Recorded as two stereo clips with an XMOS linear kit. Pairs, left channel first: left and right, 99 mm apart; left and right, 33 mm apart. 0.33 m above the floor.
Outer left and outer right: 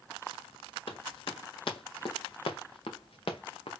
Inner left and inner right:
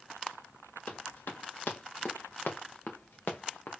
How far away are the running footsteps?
About 3.5 m.